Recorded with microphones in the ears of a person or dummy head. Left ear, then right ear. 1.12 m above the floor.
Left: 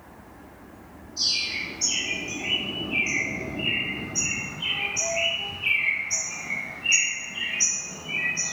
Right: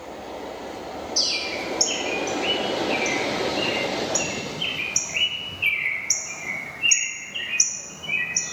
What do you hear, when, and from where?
1.2 s a bird: 85° right, 0.8 m